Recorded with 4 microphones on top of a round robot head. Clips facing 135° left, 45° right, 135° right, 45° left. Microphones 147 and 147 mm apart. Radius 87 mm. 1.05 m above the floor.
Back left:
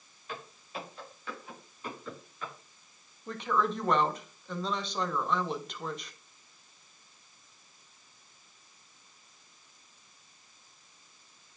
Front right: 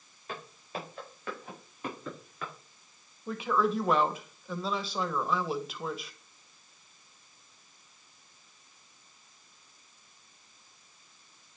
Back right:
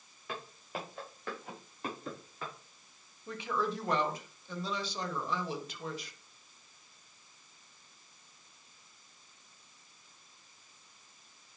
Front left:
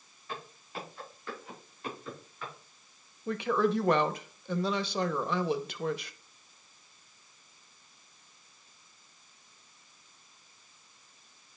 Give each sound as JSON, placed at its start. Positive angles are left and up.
{"t": 0.3, "sound": "footsteps", "azimuth_deg": -95, "distance_m": 5.5}
{"t": 3.3, "sound": "a woman speaking", "azimuth_deg": 40, "distance_m": 1.0}